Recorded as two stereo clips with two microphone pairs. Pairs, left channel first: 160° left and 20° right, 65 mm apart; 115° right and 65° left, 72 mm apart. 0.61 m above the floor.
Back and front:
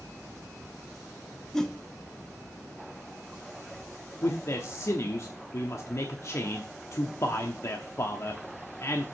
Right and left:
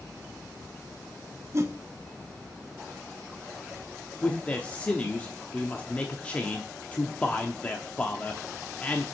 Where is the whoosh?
85° left, 0.9 m.